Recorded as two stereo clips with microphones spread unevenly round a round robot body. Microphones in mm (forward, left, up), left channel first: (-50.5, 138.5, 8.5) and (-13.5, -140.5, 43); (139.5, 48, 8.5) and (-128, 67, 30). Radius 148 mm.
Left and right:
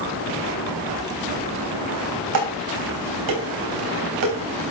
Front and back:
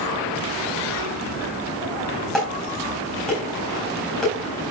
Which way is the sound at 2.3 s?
90° right.